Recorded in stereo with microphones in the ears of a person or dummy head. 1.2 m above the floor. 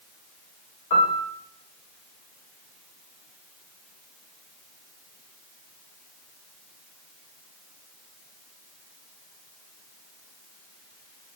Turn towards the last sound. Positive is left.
turn(degrees=20)  # may be behind; listen again after turning